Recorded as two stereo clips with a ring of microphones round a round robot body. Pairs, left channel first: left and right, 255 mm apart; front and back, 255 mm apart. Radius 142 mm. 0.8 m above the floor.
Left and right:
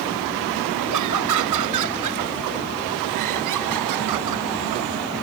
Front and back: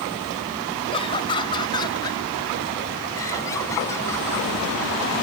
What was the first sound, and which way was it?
Laughter, 70° right.